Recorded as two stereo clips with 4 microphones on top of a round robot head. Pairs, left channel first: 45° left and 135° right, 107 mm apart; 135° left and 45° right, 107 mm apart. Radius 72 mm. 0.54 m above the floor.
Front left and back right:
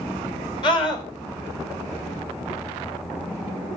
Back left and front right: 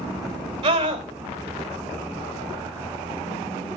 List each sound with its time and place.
0.6 s a scream: straight ahead, 4 m